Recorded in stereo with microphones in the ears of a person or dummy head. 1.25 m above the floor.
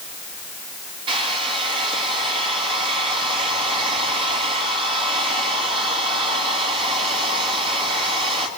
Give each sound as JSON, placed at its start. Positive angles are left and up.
{"t": 1.1, "sound": "a hair dryer", "side_deg": -35, "distance_m": 2.5}